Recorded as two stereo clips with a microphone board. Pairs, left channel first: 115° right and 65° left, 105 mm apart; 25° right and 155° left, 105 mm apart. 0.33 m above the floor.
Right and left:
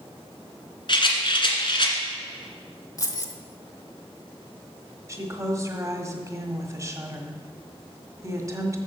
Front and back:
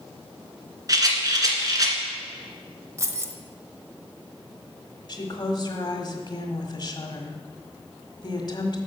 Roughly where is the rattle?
Behind right.